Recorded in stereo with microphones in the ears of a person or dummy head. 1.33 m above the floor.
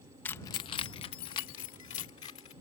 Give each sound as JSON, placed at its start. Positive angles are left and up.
{"t": 0.2, "sound": "keys jangling", "side_deg": 10}